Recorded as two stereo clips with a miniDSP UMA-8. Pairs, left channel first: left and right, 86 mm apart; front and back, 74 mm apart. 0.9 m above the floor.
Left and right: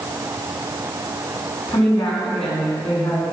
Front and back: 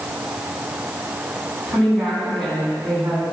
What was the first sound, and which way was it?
A woman speaking, 85° left.